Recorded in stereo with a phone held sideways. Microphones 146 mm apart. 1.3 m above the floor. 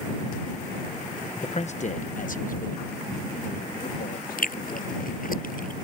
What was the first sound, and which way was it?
A man speaking, 45° left (ahead or behind).